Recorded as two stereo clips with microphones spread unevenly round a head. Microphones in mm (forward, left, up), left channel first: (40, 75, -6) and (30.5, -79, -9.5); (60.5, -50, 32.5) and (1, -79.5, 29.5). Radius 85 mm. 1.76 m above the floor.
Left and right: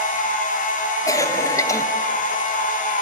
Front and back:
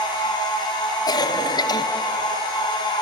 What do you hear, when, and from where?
0.0 s a machine running: 55° left, 3 m
1.1 s a cough: 15° left, 1.2 m